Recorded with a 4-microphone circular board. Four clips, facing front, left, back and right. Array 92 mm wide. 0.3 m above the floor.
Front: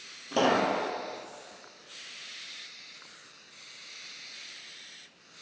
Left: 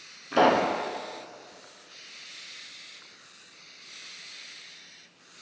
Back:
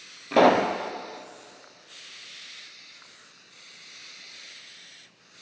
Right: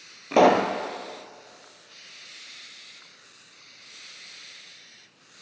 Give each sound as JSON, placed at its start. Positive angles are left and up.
{"t": 0.3, "sound": "a pop", "azimuth_deg": -120, "distance_m": 2.0}